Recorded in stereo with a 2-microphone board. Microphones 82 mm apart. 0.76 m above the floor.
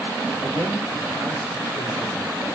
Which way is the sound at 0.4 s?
60° right (ahead or behind).